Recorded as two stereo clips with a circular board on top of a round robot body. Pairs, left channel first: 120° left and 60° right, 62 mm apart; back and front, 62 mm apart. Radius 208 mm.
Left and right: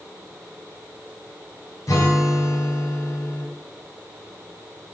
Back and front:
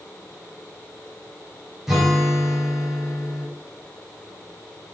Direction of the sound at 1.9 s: 85° left.